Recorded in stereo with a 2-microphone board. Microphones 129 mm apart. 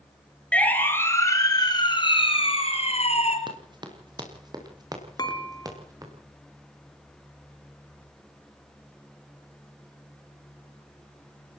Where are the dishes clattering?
35° left (ahead or behind), 2.5 m.